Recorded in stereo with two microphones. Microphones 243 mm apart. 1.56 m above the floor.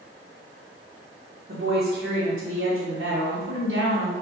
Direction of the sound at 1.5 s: 65° right (ahead or behind).